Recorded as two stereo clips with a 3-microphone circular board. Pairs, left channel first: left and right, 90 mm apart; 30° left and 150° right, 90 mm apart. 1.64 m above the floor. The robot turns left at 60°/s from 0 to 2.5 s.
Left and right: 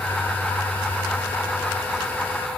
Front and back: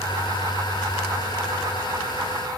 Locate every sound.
Only background noise.